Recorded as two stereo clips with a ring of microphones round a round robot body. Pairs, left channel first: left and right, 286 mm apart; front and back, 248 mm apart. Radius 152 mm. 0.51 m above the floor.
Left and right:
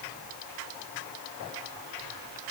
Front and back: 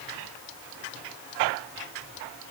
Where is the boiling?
No boiling in this recording.